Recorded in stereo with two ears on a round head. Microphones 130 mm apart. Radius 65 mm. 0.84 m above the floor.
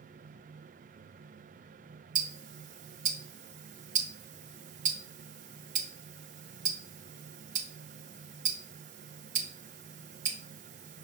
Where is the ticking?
50° right (ahead or behind), 0.5 m.